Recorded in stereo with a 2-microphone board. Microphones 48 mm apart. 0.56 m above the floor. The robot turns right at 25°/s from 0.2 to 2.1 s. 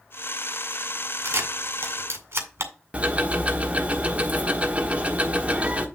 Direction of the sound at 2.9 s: 30° right (ahead or behind).